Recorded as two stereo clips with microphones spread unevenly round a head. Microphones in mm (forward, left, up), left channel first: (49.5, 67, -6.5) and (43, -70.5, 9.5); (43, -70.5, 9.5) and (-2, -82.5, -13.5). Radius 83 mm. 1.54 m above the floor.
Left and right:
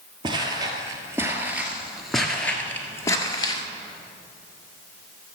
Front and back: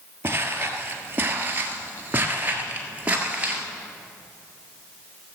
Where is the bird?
No bird in this recording.